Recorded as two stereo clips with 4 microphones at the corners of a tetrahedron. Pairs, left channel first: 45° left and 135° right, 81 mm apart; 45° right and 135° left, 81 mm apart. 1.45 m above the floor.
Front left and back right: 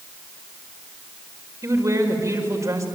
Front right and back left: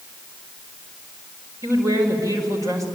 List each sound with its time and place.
1.6 s a woman speaking: straight behind, 5.5 m